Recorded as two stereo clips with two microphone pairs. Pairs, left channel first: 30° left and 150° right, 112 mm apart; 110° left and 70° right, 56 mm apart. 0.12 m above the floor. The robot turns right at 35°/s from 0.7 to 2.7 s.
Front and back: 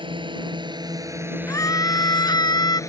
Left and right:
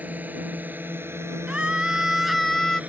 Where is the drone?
125° right; by 2.9 s 20° right.